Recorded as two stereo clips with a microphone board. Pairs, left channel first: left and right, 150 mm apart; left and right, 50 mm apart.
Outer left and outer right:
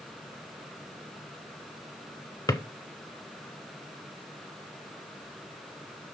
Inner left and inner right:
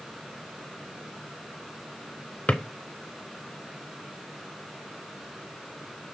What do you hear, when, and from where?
2.5 s a drawer: 25° left (ahead or behind), 0.7 m